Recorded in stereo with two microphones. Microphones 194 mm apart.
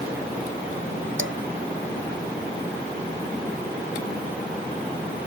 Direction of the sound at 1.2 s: 85° right.